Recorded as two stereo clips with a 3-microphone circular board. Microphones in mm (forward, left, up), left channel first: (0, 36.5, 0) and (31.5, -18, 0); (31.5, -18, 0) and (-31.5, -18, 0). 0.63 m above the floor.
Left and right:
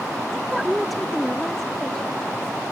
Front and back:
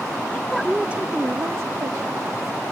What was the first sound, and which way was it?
A woman speaking, straight ahead.